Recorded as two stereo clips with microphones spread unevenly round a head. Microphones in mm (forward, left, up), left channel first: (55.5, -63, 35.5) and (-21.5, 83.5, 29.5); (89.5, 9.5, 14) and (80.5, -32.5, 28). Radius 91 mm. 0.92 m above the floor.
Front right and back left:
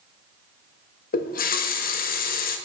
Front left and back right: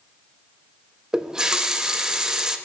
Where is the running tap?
25° right, 0.7 m.